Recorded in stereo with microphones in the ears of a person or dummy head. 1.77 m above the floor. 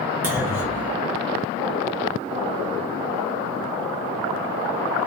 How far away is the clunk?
About 0.5 m.